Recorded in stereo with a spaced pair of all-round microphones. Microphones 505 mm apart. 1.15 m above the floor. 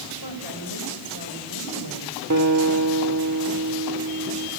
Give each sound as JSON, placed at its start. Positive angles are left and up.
{"t": 0.2, "sound": "a woman speaking", "side_deg": -50, "distance_m": 5.0}
{"t": 2.3, "sound": "a guitar", "side_deg": -35, "distance_m": 3.0}